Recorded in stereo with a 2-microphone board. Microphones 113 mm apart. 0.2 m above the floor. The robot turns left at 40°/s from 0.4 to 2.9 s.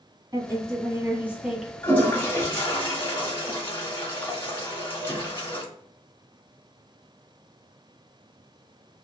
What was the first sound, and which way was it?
A woman speaking, 125° right.